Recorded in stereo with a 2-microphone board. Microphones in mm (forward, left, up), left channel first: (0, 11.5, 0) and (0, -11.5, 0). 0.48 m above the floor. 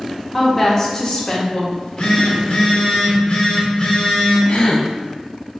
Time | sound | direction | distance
0.3 | a woman speaking | 5° left (ahead or behind) | 0.8 m
1.7 | a phone buzzing | 45° left (ahead or behind) | 0.9 m
4.5 | a gasp | 60° left (ahead or behind) | 0.7 m